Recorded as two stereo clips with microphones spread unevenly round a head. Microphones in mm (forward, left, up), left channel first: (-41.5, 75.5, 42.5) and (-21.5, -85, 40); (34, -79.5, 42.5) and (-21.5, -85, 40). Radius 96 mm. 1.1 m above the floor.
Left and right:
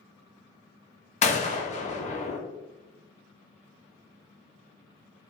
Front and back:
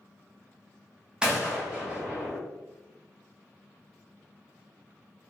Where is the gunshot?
120° left, 0.6 m.